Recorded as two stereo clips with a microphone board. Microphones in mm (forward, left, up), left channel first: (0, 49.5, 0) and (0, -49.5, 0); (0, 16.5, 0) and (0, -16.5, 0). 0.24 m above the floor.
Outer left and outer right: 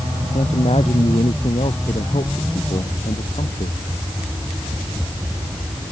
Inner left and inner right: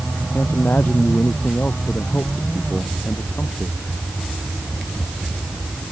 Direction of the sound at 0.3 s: 80° left.